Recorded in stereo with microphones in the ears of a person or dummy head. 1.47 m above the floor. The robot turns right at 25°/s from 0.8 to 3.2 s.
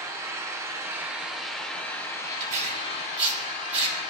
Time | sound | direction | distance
0.0 | an engine running | 20° right | 1.7 m
2.4 | tearing paper | 45° right (ahead or behind) | 1.5 m